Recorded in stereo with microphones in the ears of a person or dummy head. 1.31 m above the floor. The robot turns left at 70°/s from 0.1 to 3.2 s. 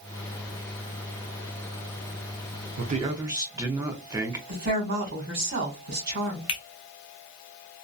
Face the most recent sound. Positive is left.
turn(degrees=30)  # may be behind; listen again after turning